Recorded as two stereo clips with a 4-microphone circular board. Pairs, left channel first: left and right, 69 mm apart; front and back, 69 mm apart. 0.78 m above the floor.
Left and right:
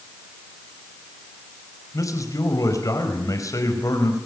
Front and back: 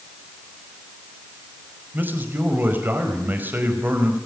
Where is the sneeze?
No sneeze in this recording.